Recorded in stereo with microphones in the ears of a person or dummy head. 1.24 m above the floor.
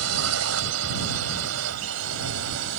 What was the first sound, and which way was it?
A drone, 80° right.